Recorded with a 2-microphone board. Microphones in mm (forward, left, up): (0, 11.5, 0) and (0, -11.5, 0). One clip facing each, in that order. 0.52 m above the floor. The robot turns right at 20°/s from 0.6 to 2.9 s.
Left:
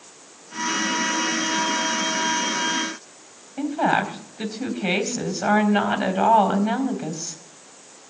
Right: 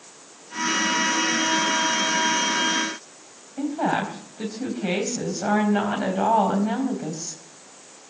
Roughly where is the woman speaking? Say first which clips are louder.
Left 3 dB; left.